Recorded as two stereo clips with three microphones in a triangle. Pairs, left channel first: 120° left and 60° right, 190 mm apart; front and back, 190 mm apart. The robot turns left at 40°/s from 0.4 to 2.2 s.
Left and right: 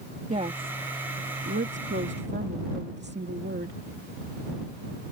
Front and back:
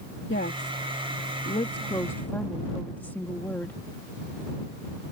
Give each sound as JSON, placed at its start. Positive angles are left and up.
{"t": 0.3, "sound": "a woman speaking", "azimuth_deg": -10}